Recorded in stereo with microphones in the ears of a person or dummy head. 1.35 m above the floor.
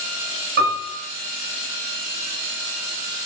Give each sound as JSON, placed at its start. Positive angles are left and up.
{"t": 0.6, "sound": "a piano", "side_deg": -60, "distance_m": 1.1}